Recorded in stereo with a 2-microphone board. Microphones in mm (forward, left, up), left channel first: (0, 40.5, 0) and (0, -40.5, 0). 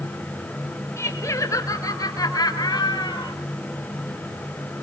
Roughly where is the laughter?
Left.